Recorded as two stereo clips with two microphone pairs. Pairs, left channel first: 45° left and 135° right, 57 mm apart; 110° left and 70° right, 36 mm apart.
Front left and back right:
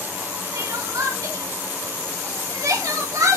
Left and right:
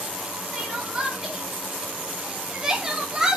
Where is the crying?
140° right, 3.5 m.